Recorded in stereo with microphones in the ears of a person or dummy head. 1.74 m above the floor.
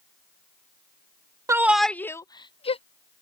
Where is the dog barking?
No dog barking in this recording.